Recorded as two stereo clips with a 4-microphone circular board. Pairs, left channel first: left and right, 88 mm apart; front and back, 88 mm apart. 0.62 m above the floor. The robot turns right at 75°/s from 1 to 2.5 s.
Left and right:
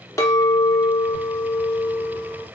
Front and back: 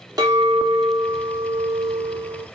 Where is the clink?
140° left, 0.6 m; by 2.5 s 110° right, 0.6 m.